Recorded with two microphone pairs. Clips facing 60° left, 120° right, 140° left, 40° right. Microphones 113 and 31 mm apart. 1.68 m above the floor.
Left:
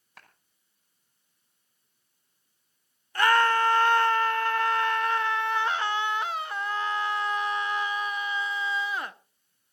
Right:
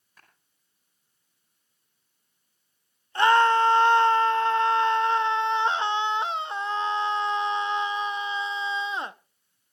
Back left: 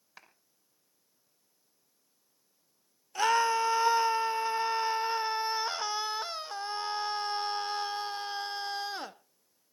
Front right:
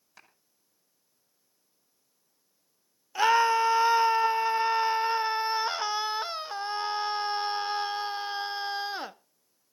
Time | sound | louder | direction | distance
0.2 | a clap | left 6 dB, back left 1 dB | 75° left | 5.5 m
3.1 | a scream | right 3 dB, front right 4 dB | 95° right | 0.7 m